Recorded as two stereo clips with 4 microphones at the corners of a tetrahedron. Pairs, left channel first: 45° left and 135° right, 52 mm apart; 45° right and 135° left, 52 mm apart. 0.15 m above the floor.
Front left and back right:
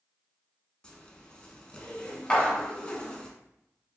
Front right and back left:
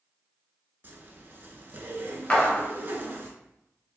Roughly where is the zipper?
Left.